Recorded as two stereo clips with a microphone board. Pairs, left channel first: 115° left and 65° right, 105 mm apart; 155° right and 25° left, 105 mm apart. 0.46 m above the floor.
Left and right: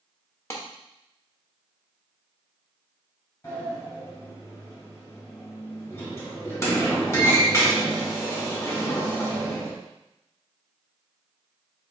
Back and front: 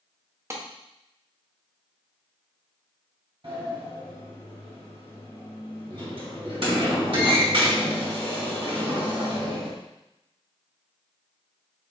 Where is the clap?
65° left, 1.0 m.